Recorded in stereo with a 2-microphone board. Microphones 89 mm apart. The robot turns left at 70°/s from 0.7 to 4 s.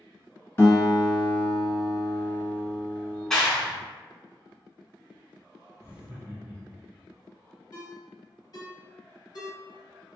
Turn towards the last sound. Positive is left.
turn(degrees=45)  # may be behind; listen again after turning